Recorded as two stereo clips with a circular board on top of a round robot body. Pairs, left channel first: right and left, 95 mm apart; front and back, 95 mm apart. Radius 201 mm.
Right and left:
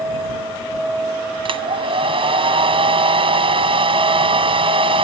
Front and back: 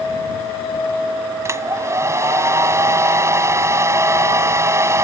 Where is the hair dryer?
120° left.